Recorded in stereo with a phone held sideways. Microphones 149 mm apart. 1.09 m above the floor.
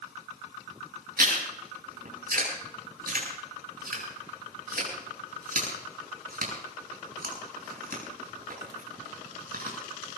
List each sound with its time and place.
1.2 s chewing: 90° right, 8 m